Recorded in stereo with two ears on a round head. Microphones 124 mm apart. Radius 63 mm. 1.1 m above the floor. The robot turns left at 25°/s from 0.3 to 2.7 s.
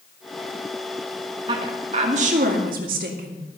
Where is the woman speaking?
35° right, 2 m; by 3.4 s 65° right, 2 m.